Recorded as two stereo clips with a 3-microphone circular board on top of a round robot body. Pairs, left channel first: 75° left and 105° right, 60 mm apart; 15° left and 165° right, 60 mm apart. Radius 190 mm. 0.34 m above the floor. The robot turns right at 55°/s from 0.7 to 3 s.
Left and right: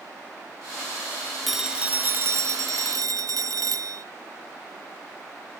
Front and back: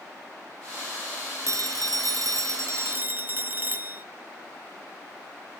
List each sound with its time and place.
1.5 s a phone ringing: 165° left, 0.8 m; by 4.0 s 110° right, 0.8 m